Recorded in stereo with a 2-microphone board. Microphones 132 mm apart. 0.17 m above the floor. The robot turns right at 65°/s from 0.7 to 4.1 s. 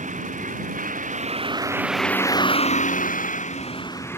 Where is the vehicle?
70° right (ahead or behind); by 4.2 s 15° left (ahead or behind).